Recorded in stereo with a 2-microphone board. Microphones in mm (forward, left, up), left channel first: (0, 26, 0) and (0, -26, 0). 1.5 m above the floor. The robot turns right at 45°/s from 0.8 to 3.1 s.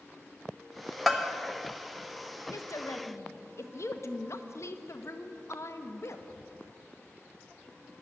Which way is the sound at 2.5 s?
80° left.